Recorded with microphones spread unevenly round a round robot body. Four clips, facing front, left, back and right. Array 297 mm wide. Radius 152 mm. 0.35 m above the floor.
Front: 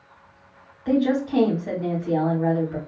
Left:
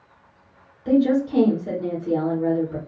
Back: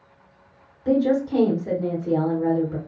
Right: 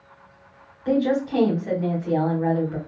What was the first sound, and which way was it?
A woman speaking, 155° left.